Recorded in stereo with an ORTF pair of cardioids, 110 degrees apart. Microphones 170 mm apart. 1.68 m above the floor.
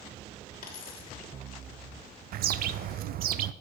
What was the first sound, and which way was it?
A dropped coin, 65° left.